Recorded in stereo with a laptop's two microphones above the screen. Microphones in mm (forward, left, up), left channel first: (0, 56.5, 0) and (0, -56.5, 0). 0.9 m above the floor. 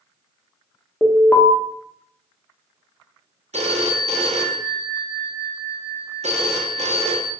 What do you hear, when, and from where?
1.0 s an alarm: 15° left (ahead or behind), 0.6 m
3.5 s a phone ringing: 75° right (ahead or behind), 0.6 m